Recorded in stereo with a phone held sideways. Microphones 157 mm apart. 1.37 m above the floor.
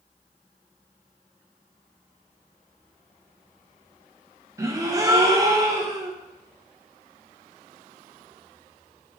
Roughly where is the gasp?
Right.